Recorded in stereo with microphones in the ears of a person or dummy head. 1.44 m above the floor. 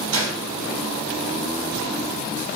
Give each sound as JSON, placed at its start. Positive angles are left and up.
{"t": 0.1, "sound": "a gunshot", "side_deg": -80, "distance_m": 1.5}